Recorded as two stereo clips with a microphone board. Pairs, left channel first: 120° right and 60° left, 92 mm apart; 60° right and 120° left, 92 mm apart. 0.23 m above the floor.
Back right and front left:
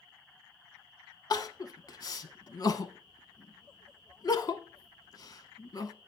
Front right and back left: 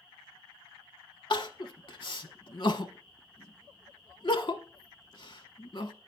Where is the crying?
85° right, 0.7 m.